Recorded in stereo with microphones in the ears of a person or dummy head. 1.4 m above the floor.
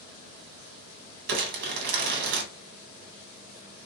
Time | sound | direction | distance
1.3 | crumpling | 50° right (ahead or behind) | 0.9 m